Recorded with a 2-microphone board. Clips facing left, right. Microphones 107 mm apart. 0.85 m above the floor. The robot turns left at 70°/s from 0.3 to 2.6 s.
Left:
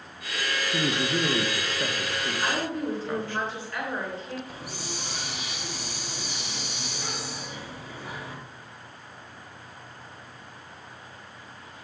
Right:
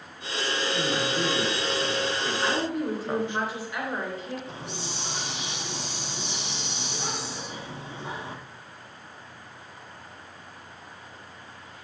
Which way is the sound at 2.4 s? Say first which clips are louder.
Right 1 dB; 5° left (ahead or behind).